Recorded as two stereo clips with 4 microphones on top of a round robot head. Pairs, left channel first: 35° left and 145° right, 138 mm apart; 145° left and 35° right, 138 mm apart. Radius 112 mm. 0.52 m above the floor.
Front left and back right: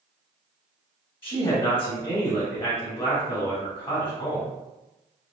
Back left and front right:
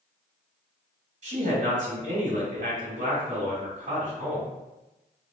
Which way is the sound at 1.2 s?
15° right.